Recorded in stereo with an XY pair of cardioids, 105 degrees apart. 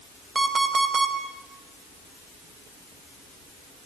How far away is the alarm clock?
About 4.5 m.